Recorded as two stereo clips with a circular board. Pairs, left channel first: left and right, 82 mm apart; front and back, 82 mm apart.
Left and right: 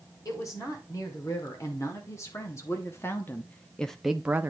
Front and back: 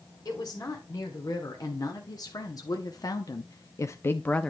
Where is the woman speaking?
45° left, 2.5 m; by 4.5 s 75° right, 0.5 m.